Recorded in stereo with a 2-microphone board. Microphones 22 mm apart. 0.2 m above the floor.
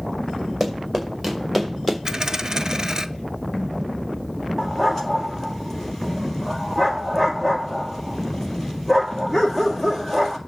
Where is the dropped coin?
30° right (ahead or behind), 0.8 m.